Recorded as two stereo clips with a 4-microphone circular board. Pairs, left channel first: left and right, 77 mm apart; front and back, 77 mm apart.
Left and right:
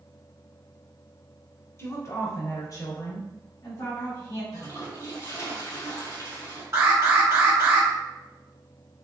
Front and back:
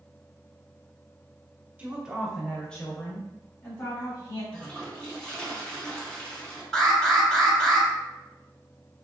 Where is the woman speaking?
115° left, 1.3 m; by 4.4 s 55° left, 2.5 m.